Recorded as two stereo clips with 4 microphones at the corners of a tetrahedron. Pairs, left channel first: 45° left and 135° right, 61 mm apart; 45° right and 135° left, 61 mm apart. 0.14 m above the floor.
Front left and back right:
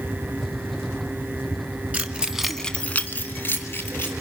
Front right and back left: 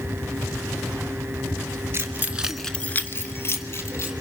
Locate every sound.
1.9 s keys jangling: 165° left, 1.2 m; by 4.1 s 10° right, 2.5 m